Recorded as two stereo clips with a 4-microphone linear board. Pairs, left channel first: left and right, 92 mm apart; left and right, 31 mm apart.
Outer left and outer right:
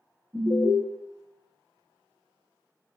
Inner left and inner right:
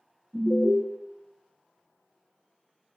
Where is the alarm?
45° right (ahead or behind), 1.3 m.